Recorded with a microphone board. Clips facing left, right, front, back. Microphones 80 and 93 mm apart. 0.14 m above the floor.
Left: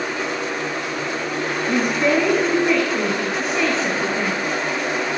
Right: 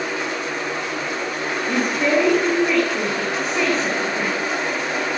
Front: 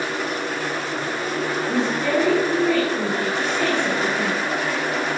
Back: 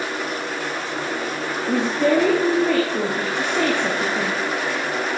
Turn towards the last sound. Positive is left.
turn(degrees=-175)